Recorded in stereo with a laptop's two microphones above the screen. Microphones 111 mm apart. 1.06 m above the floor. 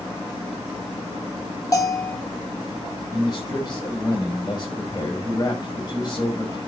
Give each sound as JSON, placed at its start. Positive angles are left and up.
{"t": 1.7, "sound": "a bell", "side_deg": 30, "distance_m": 1.2}
{"t": 3.1, "sound": "a man speaking", "side_deg": 40, "distance_m": 5.5}